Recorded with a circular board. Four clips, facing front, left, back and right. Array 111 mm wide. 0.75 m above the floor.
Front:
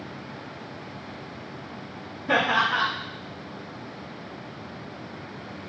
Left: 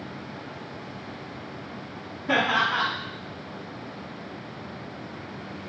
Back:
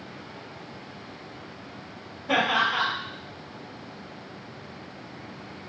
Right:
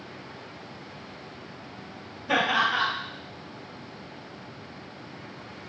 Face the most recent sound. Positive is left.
turn(degrees=50)